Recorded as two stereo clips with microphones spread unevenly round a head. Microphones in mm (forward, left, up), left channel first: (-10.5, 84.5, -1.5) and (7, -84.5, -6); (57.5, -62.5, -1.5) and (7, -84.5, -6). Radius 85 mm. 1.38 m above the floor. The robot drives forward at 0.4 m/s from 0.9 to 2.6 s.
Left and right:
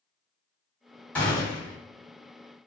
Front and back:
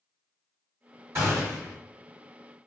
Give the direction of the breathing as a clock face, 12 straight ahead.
No breathing in this recording.